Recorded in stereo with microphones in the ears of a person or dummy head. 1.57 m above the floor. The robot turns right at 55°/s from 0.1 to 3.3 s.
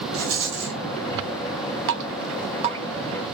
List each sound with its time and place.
0.1 s a rattle: 80° right, 0.9 m; by 0.8 s 45° right, 0.9 m
1.9 s dripping: 70° right (ahead or behind), 0.6 m; by 2.8 s 25° right (ahead or behind), 0.6 m